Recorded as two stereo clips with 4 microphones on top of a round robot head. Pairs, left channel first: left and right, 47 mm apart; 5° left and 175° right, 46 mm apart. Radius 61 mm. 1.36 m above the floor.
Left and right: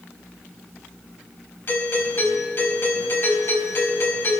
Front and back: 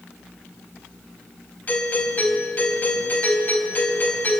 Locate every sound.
1.7 s a doorbell: 55° left, 5 m